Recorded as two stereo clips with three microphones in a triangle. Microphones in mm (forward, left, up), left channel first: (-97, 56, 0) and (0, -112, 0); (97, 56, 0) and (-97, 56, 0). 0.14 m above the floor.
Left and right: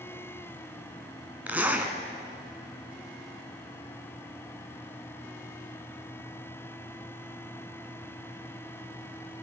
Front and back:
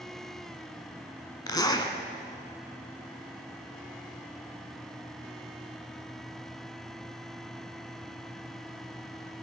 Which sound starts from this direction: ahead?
A zipper, at 1.5 s.